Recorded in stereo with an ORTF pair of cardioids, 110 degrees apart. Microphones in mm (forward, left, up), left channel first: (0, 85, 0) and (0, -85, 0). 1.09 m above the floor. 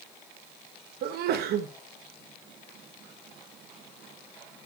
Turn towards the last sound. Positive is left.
turn(degrees=-70)